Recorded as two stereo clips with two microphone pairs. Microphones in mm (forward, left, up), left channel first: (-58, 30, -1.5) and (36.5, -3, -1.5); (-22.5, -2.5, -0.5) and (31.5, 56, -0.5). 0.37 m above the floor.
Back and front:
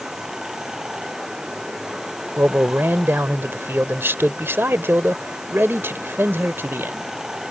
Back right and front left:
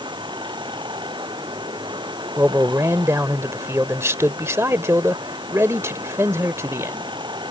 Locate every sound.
0.0 s running water: 65° left
2.4 s a man speaking: 30° left